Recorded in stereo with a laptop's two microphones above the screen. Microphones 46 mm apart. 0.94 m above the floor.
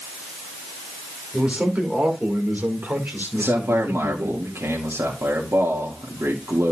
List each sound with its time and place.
1.3 s a man speaking: 25° right (ahead or behind), 2.5 m; by 4.3 s 65° right (ahead or behind), 2.5 m
3.4 s a man speaking: 65° right (ahead or behind), 2.0 m